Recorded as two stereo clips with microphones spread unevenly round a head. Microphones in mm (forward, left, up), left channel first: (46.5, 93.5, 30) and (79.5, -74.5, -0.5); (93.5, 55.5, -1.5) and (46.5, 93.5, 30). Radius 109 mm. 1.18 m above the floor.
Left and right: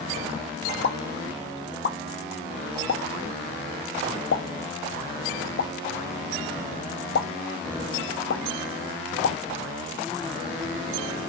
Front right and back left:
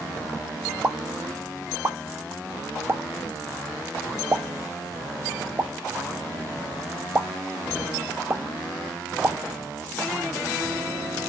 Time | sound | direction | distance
0.8 | a pop | 110° left | 1.0 m